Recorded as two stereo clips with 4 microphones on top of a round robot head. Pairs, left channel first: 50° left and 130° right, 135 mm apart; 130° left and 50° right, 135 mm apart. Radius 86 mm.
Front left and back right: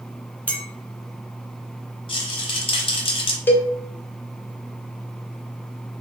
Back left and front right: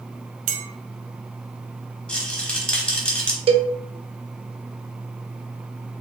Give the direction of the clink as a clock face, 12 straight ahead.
1 o'clock.